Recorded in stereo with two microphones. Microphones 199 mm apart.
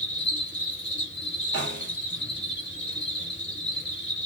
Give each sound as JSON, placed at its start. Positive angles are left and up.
{"t": 0.0, "sound": "an insect", "side_deg": 65, "distance_m": 2.5}
{"t": 1.5, "sound": "a snare drum", "side_deg": 60, "distance_m": 2.0}